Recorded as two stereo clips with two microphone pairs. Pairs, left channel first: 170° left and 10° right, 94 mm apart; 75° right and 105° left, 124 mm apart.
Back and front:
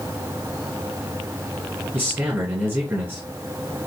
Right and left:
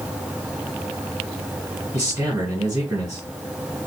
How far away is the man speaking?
About 1.8 m.